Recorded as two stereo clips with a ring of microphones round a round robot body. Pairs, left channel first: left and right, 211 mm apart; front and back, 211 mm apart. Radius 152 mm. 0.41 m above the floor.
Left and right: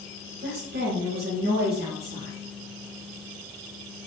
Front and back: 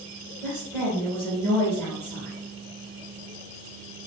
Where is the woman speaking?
75° right, 1.1 m.